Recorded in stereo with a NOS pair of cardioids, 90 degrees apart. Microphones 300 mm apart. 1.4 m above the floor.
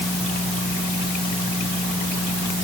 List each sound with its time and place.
Only background noise.